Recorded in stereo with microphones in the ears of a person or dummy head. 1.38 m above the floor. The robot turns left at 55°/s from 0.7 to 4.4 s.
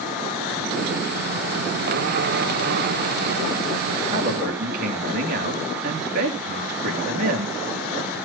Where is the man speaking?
35° right (ahead or behind), 3 m; by 7.6 s 55° right (ahead or behind), 3 m.